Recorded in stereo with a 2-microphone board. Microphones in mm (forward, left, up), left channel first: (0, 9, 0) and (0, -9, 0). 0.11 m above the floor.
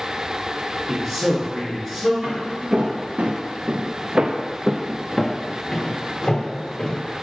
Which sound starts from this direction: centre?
A man speaking, at 0.9 s.